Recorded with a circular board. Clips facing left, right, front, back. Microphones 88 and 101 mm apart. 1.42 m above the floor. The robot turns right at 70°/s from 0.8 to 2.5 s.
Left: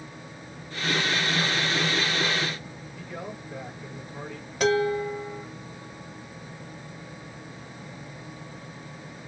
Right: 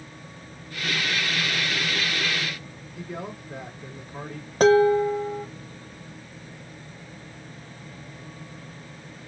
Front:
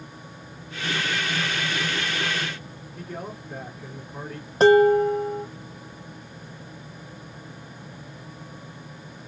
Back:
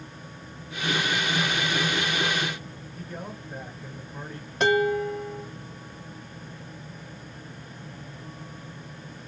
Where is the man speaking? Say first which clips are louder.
Right 3 dB, front 3 dB; 30° right, 3 m.